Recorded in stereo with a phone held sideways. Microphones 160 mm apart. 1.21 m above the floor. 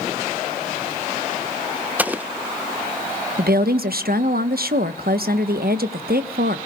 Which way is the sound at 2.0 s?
10° right (ahead or behind).